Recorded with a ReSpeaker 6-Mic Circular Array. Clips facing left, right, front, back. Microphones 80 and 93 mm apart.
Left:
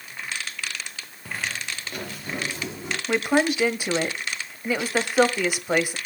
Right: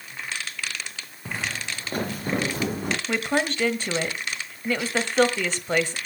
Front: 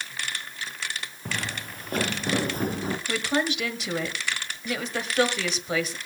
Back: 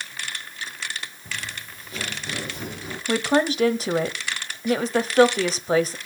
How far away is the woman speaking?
About 1.4 m.